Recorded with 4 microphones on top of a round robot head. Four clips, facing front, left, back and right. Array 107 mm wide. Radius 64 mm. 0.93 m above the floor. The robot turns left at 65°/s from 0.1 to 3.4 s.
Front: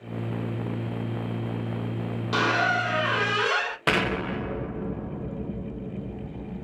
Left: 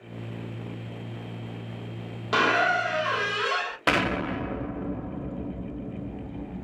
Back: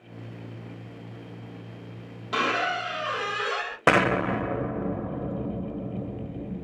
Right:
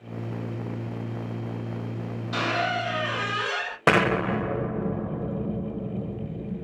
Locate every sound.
2.3 s a squeak: 75° left, 0.8 m; by 3.8 s 5° left, 0.8 m
3.9 s an explosion: 140° right, 0.6 m